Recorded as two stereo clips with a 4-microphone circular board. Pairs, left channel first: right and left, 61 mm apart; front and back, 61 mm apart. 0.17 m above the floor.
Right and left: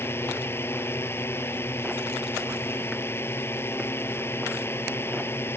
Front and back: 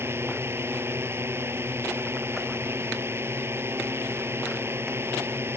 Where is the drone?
135° right.